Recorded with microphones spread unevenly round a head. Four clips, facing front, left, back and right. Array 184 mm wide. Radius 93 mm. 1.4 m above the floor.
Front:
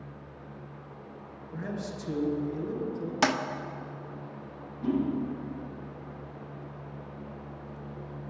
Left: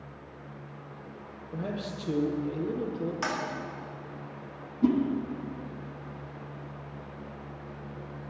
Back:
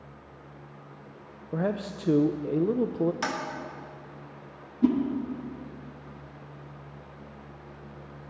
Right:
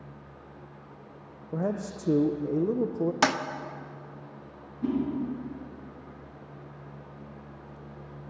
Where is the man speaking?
145° right, 0.6 m.